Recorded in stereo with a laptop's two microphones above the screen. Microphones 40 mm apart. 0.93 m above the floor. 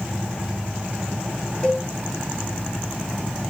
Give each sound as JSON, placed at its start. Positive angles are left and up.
{"t": 1.6, "sound": "a cowbell", "side_deg": 15, "distance_m": 1.7}